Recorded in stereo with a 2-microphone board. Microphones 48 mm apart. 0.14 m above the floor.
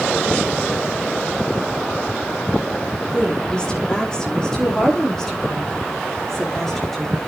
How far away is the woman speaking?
About 8 m.